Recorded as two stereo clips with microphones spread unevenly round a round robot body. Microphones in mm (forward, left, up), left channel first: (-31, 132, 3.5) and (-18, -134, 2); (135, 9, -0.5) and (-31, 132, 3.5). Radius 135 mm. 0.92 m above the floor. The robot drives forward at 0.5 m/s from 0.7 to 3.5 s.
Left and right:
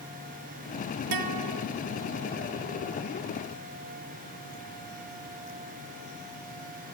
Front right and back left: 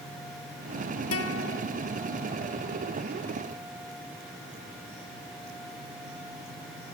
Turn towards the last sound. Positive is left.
turn(degrees=-135)